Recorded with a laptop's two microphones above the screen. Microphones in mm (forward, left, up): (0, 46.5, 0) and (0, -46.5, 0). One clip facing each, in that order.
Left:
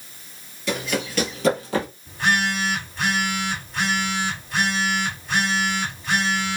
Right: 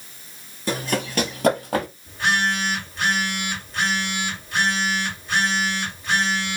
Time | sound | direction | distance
0.7 | running footsteps | 35° right (ahead or behind) | 1.0 m
2.1 | a phone buzzing | centre (ahead or behind) | 2 m